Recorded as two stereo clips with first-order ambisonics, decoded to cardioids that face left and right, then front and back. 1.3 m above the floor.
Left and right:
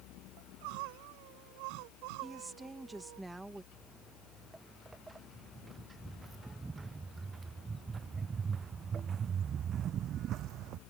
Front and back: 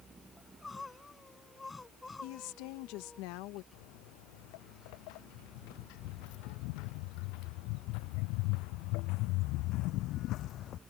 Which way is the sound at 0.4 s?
85° right.